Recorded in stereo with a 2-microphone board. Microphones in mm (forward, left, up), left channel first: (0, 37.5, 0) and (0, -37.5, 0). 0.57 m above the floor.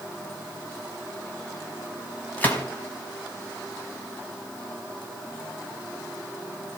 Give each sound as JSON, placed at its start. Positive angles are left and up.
{"t": 2.4, "sound": "a gunshot", "side_deg": 20, "distance_m": 4.5}